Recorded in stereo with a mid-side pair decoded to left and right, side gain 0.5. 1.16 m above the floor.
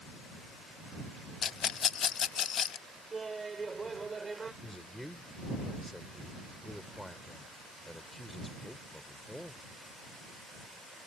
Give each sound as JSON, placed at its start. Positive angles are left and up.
{"t": 1.4, "sound": "a rattle", "azimuth_deg": 50}
{"t": 3.1, "sound": "laughter", "azimuth_deg": -25}
{"t": 4.6, "sound": "a man speaking", "azimuth_deg": 5}